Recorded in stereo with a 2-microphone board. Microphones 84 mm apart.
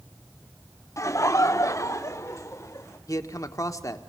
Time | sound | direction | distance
1.0 | laughter | 40° left (ahead or behind) | 0.9 m
3.1 | a man speaking | 45° left (ahead or behind) | 1.3 m